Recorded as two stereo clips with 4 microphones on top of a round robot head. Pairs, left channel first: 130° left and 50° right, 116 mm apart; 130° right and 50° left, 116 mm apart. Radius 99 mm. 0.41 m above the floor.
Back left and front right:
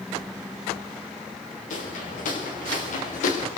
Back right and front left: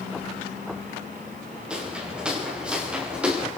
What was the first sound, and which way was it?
Footsteps, 135° left.